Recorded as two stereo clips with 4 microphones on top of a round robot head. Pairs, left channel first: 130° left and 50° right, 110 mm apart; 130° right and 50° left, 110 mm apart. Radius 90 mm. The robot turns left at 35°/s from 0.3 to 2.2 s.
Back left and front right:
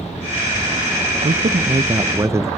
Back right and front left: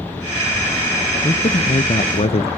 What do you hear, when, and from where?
1.2 s a man speaking: 75° right, 0.5 m; by 2.5 s 110° right, 0.5 m